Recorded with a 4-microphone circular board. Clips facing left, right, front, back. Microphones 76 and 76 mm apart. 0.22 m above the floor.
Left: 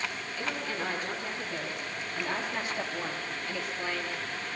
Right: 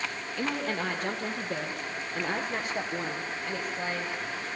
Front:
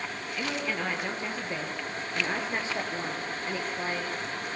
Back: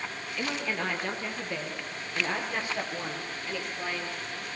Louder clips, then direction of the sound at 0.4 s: Right 4 dB, even; 80° right.